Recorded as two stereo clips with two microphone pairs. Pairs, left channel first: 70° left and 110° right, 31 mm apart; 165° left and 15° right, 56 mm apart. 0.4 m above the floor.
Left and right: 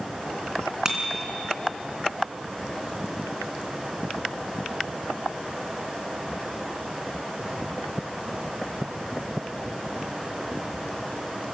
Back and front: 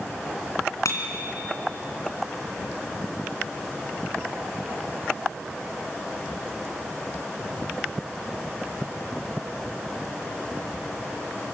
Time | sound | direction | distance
0.8 | a bicycle bell | straight behind | 3 m